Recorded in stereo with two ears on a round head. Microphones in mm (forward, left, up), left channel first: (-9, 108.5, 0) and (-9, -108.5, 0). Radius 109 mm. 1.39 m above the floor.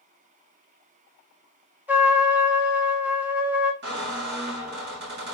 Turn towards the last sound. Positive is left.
turn(degrees=-45)  # may be behind; listen again after turning